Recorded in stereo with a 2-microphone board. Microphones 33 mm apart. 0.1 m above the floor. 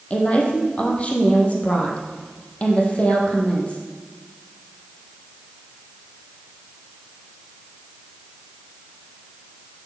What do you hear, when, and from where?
0.1 s a woman speaking: 35° left (ahead or behind), 4 m